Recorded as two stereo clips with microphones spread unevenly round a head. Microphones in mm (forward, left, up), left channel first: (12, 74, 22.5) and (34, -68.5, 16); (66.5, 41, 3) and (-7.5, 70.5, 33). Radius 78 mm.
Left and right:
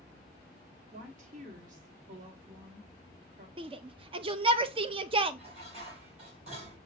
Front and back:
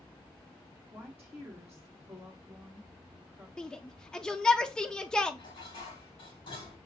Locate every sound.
0.9 s a woman speaking: 125° right, 1.1 m
3.6 s a shout: 70° right, 0.5 m
5.4 s dishes clattering: 35° right, 3.5 m